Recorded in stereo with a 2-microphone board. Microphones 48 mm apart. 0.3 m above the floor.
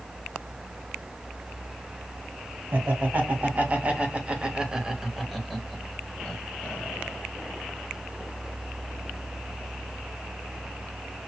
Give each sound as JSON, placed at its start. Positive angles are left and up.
{"t": 2.7, "sound": "laughter", "side_deg": -45, "distance_m": 2.0}